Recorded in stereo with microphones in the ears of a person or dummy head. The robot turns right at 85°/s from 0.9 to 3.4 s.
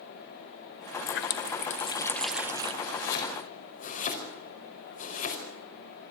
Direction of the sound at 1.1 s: 75° left.